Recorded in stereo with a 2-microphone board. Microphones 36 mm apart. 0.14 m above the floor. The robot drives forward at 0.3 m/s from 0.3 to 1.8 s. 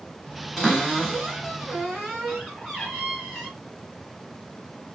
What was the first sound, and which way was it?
A cupboard door, 5° right (ahead or behind).